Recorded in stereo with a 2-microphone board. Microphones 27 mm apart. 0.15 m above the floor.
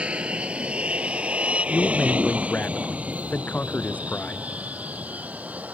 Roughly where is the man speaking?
Left.